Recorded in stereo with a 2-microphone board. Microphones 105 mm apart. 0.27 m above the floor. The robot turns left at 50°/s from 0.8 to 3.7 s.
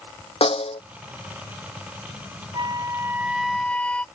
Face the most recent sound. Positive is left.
turn(degrees=170)